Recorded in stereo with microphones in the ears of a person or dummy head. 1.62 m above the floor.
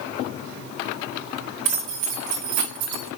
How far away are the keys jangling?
About 2 m.